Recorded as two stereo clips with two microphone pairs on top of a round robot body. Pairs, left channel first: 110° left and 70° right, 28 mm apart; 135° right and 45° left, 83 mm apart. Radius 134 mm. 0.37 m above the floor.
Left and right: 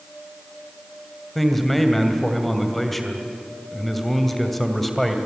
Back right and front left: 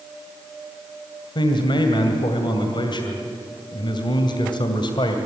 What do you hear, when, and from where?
1.4 s a man speaking: 165° right, 2.5 m